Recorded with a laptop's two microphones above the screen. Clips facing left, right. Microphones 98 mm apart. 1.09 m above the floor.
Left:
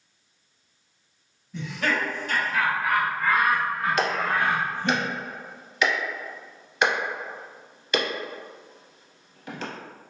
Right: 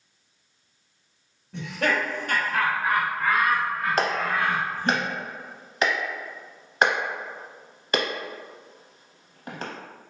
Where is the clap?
40° right (ahead or behind), 0.6 m.